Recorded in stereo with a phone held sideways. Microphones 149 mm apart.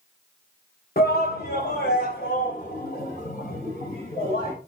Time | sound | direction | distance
1.0 | a shout | 85° left | 1.3 m